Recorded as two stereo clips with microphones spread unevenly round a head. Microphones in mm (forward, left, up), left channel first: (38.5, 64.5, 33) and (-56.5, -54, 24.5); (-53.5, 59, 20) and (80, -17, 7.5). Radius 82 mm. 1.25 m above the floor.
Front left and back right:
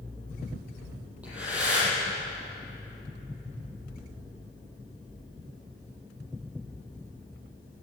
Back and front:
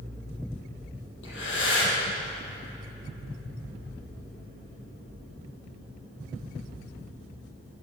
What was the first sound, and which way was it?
Breathing, 150° left.